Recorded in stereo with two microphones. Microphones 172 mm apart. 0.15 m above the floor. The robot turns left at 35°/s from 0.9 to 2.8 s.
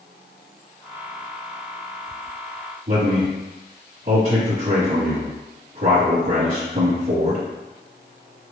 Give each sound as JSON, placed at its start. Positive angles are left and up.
{"t": 2.9, "sound": "a man speaking", "side_deg": -50, "distance_m": 2.0}